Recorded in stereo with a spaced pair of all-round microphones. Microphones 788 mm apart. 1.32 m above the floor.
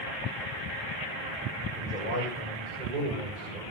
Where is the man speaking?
75° right (ahead or behind), 7 m; by 3.6 s 70° right (ahead or behind), 7.5 m.